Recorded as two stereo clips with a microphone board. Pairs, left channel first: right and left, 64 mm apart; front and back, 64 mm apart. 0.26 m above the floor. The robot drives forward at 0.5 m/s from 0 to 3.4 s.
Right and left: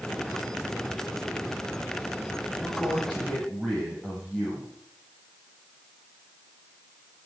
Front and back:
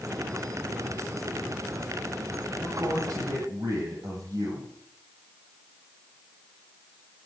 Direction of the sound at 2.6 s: 175° right.